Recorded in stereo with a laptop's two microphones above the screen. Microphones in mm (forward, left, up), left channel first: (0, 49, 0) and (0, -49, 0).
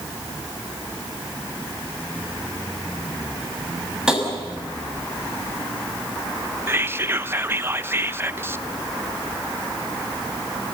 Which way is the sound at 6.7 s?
25° right (ahead or behind).